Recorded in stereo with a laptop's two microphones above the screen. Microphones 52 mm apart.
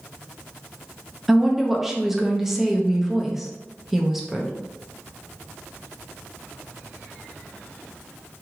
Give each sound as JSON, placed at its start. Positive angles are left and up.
{"t": 1.3, "sound": "a woman speaking", "side_deg": -10, "distance_m": 0.8}